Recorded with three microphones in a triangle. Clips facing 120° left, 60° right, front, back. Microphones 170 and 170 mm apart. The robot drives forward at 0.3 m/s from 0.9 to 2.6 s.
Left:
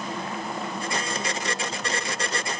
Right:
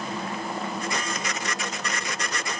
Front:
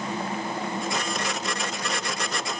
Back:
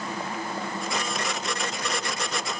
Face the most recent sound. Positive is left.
No sound to turn to.